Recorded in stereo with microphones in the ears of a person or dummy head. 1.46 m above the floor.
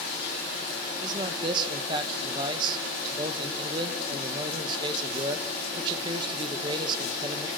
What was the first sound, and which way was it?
A man speaking, 30° right (ahead or behind).